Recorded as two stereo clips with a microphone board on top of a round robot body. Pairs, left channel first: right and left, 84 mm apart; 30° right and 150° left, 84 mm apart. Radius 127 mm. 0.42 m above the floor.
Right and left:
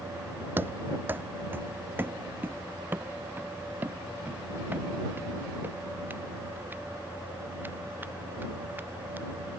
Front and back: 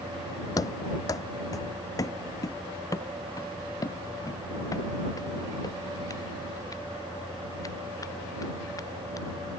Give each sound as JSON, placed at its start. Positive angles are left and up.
{"t": 0.6, "sound": "running footsteps", "azimuth_deg": 20}